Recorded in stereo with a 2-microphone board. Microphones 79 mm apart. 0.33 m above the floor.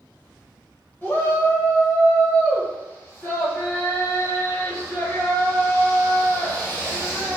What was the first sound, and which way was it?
A shout, 25° left (ahead or behind).